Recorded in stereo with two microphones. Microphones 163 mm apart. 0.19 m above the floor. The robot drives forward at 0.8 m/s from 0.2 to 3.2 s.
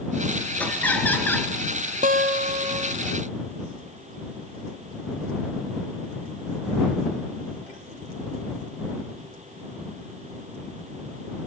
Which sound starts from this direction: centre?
Laughter, at 0.6 s.